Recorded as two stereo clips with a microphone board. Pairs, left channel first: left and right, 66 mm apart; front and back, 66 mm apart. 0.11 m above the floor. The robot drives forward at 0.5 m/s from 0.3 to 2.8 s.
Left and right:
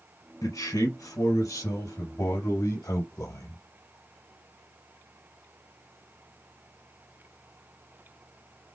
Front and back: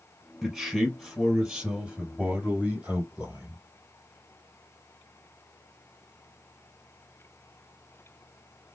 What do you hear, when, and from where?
0.4 s a man speaking: 90° left, 3 m; by 3.6 s 115° left, 3 m